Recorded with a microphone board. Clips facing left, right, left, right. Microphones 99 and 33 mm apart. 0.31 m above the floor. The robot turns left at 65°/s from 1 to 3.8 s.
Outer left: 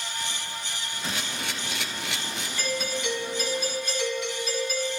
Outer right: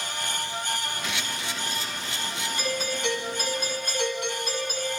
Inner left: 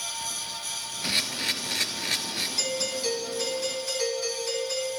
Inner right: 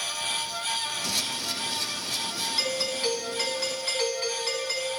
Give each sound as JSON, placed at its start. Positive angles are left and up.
{"t": 1.0, "sound": "a camera shutter", "azimuth_deg": 145, "distance_m": 1.3}
{"t": 2.6, "sound": "a doorbell", "azimuth_deg": -25, "distance_m": 3.0}